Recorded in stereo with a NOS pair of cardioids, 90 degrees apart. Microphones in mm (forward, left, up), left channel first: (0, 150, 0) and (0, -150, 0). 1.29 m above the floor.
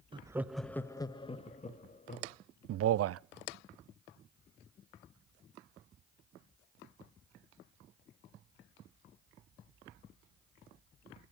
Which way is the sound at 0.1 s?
15° right.